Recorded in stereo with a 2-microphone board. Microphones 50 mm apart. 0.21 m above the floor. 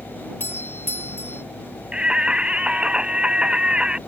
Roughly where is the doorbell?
Left.